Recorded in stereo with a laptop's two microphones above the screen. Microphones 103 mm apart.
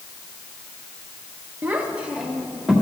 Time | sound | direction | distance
1.6 | a child speaking | 20° right (ahead or behind) | 1.1 m